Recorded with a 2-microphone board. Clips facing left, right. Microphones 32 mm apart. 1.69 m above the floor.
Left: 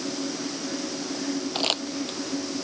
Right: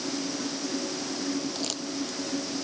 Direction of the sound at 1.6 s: 55° left (ahead or behind).